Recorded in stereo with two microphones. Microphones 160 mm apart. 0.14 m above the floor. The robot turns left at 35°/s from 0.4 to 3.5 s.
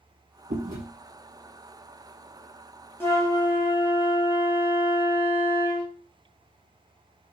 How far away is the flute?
About 2 m.